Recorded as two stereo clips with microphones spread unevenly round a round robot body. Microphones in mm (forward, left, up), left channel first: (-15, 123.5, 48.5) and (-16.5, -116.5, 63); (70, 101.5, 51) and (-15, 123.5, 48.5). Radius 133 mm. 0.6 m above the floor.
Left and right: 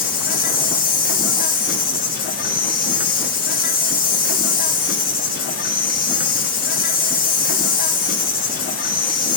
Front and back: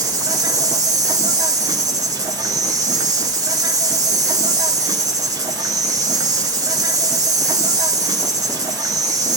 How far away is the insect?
About 1.0 m.